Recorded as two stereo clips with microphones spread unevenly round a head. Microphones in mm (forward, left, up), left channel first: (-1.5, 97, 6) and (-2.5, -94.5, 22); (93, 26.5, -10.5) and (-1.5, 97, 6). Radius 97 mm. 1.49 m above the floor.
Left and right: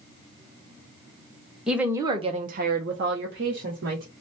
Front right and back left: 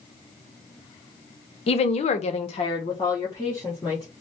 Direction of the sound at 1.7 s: 5° right.